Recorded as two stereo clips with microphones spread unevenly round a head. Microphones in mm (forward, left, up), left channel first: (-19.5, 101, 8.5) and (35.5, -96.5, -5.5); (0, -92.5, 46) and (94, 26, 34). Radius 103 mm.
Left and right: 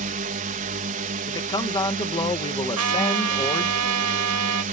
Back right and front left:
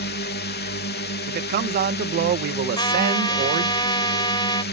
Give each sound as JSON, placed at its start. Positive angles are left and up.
{"t": 0.0, "sound": "a drone", "azimuth_deg": -125}
{"t": 1.3, "sound": "a man speaking", "azimuth_deg": 35}
{"t": 2.8, "sound": "a trumpet", "azimuth_deg": -70}